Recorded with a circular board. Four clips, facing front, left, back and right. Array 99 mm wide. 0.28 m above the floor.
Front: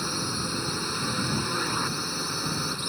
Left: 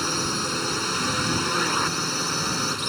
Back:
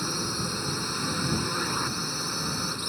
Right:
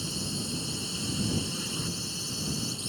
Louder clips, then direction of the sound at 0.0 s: Left 9 dB, even; 90° left.